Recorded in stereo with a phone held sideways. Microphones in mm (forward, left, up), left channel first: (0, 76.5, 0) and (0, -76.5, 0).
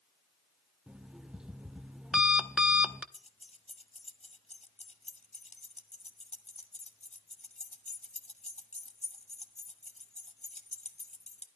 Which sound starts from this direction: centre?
An alarm clock, at 0.9 s.